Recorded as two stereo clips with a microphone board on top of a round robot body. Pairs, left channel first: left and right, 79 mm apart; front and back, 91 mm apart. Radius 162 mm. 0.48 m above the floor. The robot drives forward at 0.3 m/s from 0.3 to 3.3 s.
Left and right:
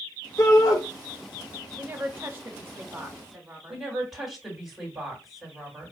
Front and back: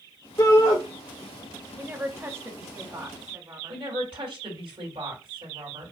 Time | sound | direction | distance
0.4 | a shout | 45° left | 3 m
1.8 | a woman speaking | 125° right | 1.4 m
3.7 | a woman speaking | 175° right | 3 m